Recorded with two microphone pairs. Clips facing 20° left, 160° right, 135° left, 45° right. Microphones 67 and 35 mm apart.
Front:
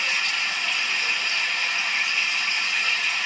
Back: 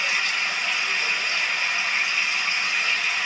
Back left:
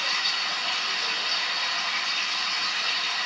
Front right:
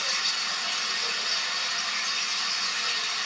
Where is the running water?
165° left, 1.4 m.